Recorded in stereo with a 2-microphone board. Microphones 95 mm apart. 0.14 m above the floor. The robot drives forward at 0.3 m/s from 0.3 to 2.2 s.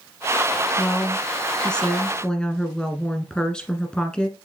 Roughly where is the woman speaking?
Centre.